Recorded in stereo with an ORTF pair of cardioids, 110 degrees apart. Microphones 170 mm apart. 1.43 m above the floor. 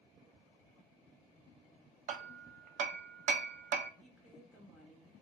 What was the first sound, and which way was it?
Hammering, 50° right.